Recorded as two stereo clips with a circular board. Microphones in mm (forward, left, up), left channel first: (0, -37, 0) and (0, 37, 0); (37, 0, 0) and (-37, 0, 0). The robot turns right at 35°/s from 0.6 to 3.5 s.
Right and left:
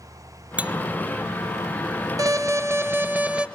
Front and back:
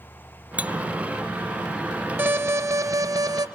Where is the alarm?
120° left, 1.5 m; by 3.5 s 165° left, 1.5 m.